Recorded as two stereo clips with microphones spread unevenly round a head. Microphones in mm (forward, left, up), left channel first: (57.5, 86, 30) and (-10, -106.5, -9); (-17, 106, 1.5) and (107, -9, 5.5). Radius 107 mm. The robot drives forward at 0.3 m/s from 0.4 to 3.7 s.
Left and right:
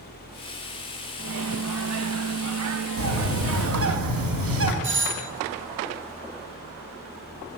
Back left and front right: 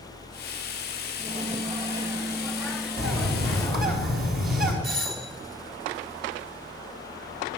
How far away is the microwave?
About 0.9 m.